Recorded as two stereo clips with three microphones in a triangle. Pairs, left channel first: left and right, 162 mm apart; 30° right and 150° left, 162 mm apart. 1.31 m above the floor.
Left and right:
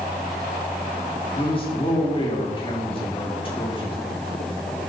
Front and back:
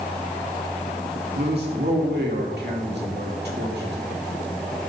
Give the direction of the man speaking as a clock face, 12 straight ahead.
7 o'clock.